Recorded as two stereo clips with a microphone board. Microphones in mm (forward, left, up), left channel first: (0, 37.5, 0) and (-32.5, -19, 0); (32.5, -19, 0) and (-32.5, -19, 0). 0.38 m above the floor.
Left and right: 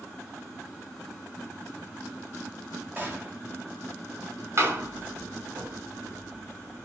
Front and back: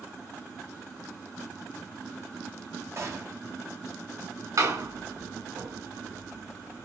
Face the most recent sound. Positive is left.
turn(degrees=-160)